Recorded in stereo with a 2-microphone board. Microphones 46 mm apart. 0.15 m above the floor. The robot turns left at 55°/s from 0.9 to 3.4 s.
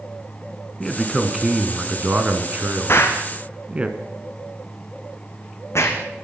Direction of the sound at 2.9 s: 55° left (ahead or behind).